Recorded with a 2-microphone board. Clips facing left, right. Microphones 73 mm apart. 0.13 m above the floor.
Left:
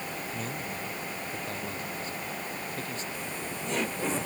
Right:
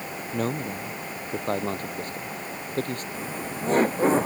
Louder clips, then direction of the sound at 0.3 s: Right 7 dB; 55° right (ahead or behind).